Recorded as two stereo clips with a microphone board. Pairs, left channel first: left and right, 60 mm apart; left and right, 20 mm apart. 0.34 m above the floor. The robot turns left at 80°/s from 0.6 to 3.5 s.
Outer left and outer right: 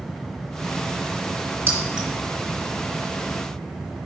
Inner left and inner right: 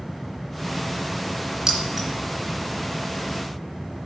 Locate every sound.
1.7 s keys jangling: 35° right (ahead or behind), 2.5 m; by 2.1 s 5° right (ahead or behind), 2.5 m